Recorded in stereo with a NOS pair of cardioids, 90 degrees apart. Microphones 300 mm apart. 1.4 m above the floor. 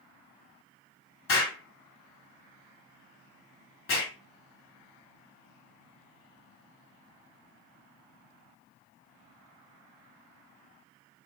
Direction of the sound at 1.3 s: 50° left.